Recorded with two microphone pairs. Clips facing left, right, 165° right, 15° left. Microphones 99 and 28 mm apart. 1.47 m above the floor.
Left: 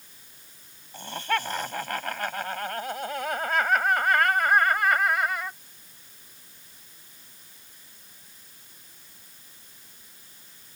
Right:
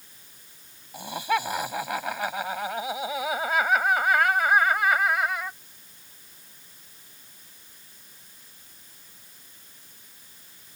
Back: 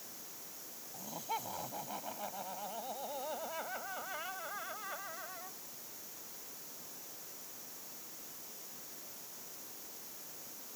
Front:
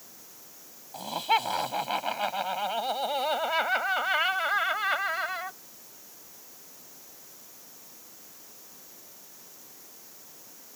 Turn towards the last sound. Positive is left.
turn(degrees=0)